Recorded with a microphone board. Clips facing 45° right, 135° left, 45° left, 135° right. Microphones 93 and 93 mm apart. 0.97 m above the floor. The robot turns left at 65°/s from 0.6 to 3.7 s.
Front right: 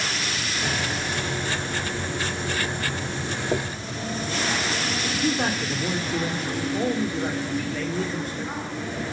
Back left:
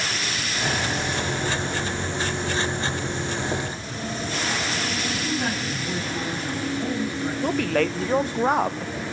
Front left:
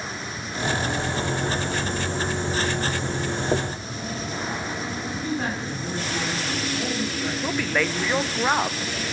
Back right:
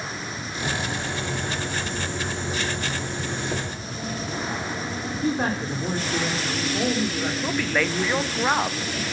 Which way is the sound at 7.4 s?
135° left.